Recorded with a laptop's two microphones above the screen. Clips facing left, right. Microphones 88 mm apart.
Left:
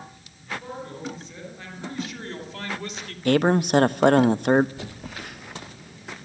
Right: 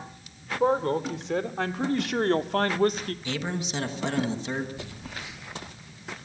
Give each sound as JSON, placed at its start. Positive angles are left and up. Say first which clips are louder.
{"t": 0.6, "sound": "a man speaking", "louder": "right 12 dB", "side_deg": -80, "distance_m": 3.5}
{"t": 3.2, "sound": "a man speaking", "louder": "left 15 dB", "side_deg": 55, "distance_m": 0.8}
{"t": 4.8, "sound": "a phone buzzing", "louder": "left 2 dB", "side_deg": 55, "distance_m": 3.0}